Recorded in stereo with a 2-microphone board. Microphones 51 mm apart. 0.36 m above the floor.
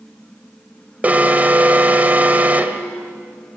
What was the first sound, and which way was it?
An alarm, 35° right (ahead or behind).